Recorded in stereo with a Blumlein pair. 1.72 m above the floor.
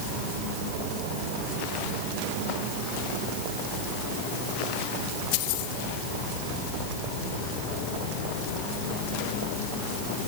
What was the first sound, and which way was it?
Only background noise.